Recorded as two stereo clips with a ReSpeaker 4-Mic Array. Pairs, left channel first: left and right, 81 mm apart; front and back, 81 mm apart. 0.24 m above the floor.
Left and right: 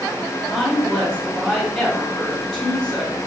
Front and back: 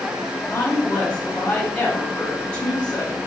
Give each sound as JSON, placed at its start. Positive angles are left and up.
{"t": 0.5, "sound": "a woman speaking", "azimuth_deg": 20, "distance_m": 1.5}